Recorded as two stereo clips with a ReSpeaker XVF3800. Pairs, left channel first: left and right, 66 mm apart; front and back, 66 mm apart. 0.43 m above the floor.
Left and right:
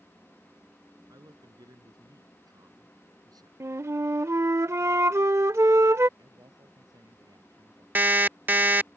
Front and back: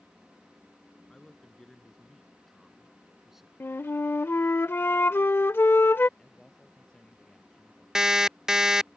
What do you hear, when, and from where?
1.1 s a woman speaking: 80° right; by 3.5 s 95° right
3.6 s a flute: 50° right
6.2 s a man speaking: 80° right
8.0 s an alarm clock: 105° right